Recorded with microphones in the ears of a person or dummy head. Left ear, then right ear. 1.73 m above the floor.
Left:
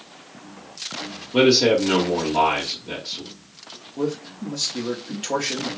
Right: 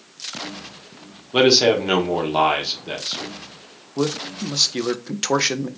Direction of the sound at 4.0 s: 55° right (ahead or behind).